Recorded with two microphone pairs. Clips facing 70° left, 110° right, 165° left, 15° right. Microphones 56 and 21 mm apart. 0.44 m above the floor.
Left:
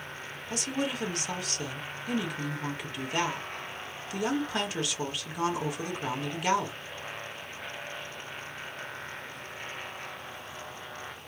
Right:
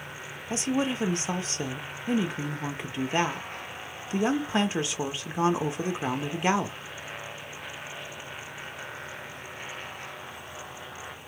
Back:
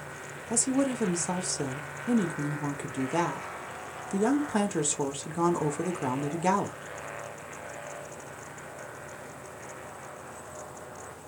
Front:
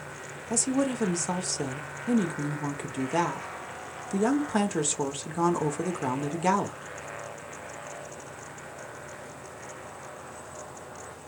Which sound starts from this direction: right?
A woman speaking, at 0.5 s.